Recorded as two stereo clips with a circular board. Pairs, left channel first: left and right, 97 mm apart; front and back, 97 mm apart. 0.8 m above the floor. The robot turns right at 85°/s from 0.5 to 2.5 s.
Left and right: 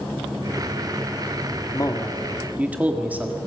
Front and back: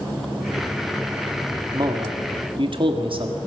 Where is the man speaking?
130° left, 1.7 m; by 3.4 s 165° right, 1.7 m.